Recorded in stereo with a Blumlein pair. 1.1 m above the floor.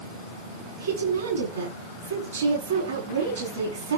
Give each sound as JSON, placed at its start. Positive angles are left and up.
{"t": 0.8, "sound": "a woman speaking", "azimuth_deg": -70, "distance_m": 9.5}